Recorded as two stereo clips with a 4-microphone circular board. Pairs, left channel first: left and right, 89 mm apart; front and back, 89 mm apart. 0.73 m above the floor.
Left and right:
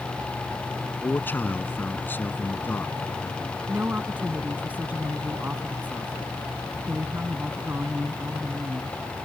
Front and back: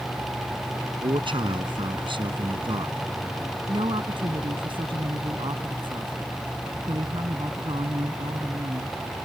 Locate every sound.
0.9 s a man speaking: 160° left
3.7 s a woman speaking: 160° right